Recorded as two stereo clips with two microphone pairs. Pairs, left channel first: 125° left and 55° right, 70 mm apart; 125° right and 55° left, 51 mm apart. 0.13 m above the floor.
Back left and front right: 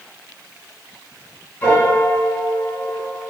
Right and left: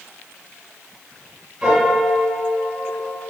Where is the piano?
105° left, 1.3 m.